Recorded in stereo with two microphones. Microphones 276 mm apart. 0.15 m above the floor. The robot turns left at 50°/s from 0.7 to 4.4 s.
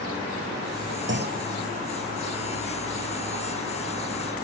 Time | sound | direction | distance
1.1 | a clunk | 45° right (ahead or behind) | ?